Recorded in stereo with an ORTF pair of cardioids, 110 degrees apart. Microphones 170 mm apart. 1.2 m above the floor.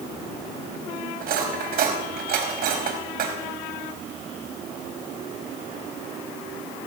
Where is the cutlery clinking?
60° right, 5 m.